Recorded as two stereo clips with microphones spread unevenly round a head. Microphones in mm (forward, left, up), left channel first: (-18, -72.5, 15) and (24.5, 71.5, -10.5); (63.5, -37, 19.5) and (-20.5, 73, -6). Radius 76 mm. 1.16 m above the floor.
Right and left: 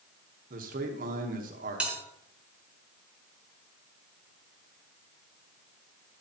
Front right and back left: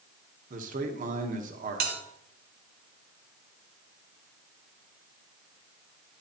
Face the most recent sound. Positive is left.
turn(degrees=160)